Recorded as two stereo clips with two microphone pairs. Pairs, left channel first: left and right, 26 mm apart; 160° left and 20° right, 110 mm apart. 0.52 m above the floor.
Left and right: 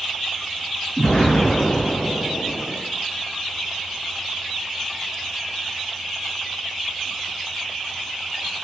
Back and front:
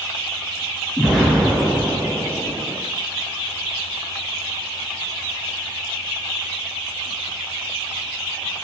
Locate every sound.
1.0 s an explosion: 75° left, 1.7 m